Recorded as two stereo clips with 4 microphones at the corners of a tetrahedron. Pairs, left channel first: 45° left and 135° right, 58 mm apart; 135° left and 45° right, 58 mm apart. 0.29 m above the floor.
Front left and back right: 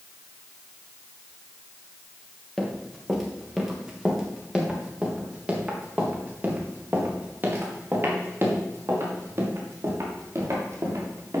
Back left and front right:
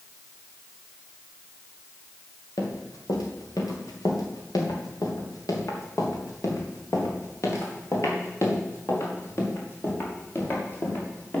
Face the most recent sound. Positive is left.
turn(degrees=-175)